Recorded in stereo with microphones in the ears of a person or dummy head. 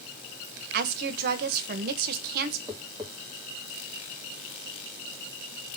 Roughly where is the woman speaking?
Right.